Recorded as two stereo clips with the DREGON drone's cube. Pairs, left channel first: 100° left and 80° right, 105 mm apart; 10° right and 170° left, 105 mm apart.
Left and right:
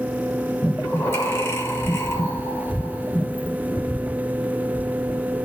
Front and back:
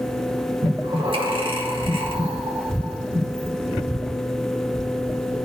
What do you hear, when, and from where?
0.6 s breathing: 160° left, 1.3 m